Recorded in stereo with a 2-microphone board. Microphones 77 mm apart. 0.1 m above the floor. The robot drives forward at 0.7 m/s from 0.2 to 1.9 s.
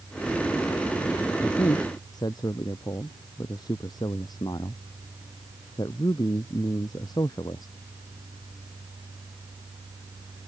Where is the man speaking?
65° left (ahead or behind); by 7.7 s 60° left (ahead or behind).